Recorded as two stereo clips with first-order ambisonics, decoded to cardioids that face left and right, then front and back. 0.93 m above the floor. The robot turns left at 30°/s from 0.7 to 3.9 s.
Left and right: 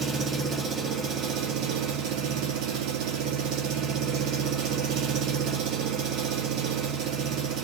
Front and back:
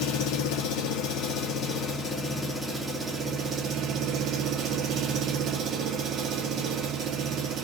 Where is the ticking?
No ticking in this recording.